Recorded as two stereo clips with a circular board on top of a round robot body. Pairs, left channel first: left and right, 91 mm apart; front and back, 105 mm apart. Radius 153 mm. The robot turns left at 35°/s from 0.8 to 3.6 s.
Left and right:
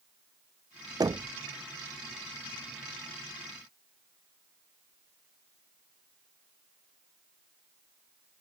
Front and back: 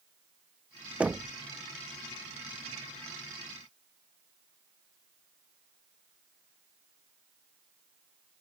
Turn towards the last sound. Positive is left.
turn(degrees=165)